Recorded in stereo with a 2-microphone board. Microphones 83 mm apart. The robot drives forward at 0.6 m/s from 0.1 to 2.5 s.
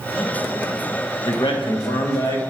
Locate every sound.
1.2 s a man speaking: 85° left, 1.0 m; by 2.4 s 50° left (ahead or behind), 1.2 m